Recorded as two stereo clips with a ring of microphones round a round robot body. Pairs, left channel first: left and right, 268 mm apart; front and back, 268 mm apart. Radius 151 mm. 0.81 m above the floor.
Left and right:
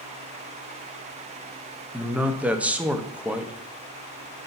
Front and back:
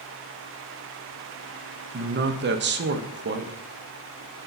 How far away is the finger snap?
I don't hear a finger snap.